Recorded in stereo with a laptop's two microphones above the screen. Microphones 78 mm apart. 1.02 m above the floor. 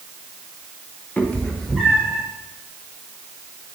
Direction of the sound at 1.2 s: 20° left (ahead or behind).